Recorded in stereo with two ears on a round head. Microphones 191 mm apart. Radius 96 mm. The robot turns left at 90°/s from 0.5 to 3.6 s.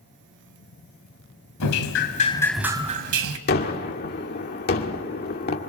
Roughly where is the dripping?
Left.